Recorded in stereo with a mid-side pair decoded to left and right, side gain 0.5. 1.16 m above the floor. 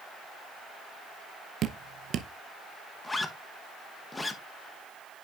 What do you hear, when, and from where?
1.6 s dripping: 60° right, 0.6 m
3.0 s a zipper: 20° left, 1.0 m